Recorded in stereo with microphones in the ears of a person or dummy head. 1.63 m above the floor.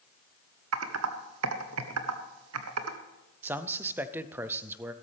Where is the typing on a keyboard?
80° right, 1.0 m.